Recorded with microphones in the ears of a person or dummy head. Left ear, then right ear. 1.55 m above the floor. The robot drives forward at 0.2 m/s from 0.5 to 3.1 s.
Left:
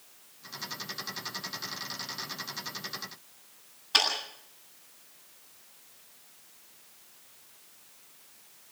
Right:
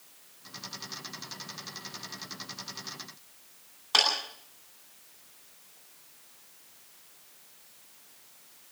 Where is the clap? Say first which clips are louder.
Right 1 dB; 35° right (ahead or behind), 10 m.